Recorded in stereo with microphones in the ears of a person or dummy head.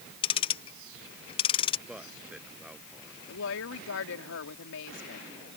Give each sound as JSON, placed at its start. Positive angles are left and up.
{"t": 0.2, "sound": "ticking", "side_deg": 20}
{"t": 1.9, "sound": "a man speaking", "side_deg": -5}
{"t": 3.3, "sound": "a woman speaking", "side_deg": 80}